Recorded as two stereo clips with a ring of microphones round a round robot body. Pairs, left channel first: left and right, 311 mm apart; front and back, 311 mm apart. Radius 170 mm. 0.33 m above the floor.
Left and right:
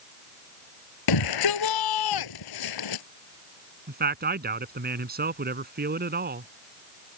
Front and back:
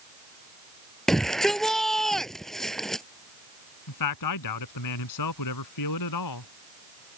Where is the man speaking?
30° right.